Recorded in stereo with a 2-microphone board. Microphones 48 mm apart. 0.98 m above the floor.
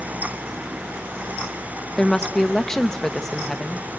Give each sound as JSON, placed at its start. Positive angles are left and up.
{"t": 2.0, "sound": "a woman speaking", "side_deg": 10, "distance_m": 0.8}